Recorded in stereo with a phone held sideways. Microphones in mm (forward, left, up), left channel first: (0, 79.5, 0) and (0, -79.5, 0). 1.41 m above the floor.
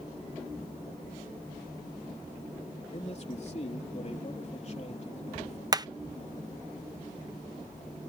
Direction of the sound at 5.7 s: 25° right (ahead or behind).